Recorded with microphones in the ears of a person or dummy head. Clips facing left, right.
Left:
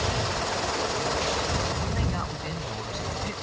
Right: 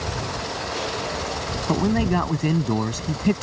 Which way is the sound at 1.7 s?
65° right (ahead or behind).